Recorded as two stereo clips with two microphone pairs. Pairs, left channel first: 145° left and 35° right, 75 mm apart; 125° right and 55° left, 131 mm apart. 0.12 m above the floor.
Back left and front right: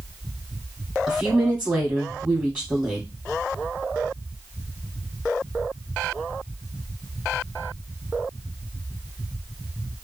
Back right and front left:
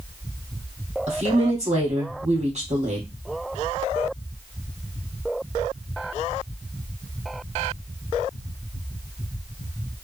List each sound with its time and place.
1.1 s a woman speaking: 30° left, 2.5 m